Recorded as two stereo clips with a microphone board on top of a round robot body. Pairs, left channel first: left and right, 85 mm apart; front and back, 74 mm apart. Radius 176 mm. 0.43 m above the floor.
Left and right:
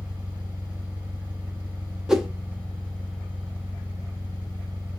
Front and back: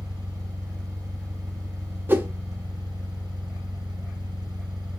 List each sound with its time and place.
0.0 s an engine running: 160° right, 1.9 m
2.1 s a whoosh: 165° right, 1.5 m